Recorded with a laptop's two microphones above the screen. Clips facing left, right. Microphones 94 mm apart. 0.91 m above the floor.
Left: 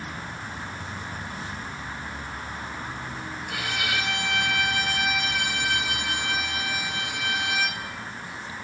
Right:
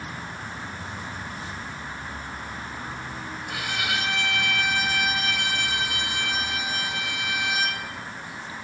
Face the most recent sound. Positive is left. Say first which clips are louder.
# even
turn(degrees=0)  # may be behind; listen again after turning